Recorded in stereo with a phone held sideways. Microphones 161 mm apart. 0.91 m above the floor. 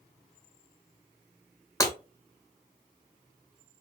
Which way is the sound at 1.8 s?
20° left (ahead or behind).